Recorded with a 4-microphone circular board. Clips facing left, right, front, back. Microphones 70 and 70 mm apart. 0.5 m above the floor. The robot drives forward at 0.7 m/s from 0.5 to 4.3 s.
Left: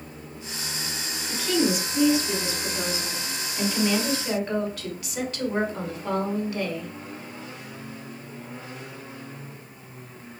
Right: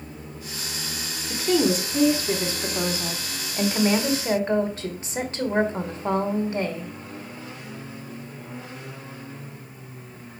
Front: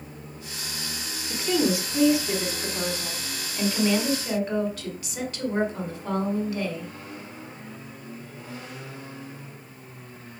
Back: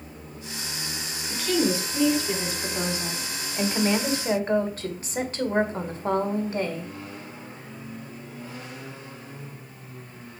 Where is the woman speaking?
55° right, 1.8 m; by 6.9 s 140° right, 2 m.